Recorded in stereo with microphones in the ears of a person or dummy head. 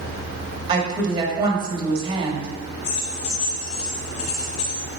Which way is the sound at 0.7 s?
25° right (ahead or behind).